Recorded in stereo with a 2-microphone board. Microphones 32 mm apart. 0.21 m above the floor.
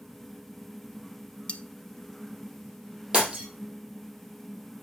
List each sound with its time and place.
1.5 s cutlery clinking: 35° left (ahead or behind), 0.9 m
3.1 s breaking glass: 30° right (ahead or behind), 4 m